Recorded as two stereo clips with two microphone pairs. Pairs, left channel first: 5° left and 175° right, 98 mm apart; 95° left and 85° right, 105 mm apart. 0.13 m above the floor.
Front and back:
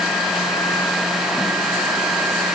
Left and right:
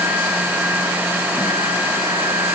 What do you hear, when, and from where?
Only background noise.